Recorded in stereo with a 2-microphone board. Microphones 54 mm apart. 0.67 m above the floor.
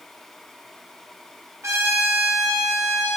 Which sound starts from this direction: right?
A trumpet, at 1.6 s.